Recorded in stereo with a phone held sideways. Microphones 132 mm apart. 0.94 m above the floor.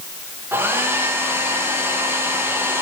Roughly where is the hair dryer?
Centre.